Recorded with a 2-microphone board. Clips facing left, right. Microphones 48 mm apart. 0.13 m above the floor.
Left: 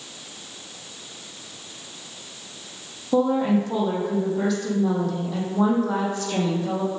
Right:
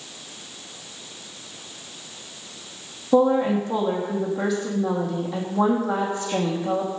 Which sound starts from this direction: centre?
A woman speaking, at 3.1 s.